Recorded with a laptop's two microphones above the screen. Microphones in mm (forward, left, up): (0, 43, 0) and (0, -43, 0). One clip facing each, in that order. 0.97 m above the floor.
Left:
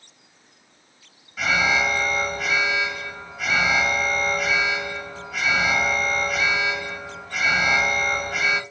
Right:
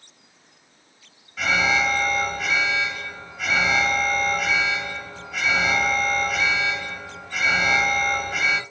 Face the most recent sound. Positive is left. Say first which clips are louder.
# even
turn(degrees=0)  # may be behind; listen again after turning